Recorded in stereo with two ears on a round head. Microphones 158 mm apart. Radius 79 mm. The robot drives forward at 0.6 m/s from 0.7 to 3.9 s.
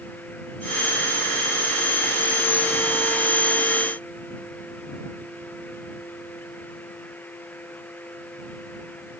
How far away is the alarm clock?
I don't hear an alarm clock.